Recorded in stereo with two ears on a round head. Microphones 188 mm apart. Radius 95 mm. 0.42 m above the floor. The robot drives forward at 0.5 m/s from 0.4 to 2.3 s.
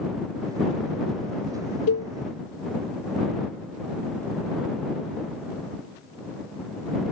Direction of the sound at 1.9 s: 85° left.